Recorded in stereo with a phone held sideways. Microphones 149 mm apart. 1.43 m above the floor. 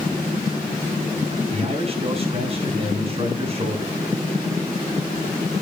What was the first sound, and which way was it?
A man speaking, 40° right (ahead or behind).